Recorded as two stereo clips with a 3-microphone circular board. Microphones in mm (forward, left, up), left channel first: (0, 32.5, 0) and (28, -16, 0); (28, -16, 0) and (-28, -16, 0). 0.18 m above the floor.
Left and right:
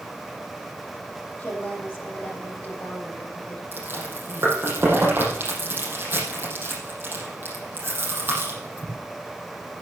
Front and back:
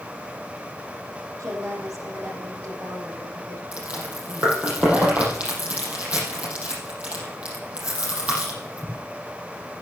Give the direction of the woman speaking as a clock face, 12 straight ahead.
6 o'clock.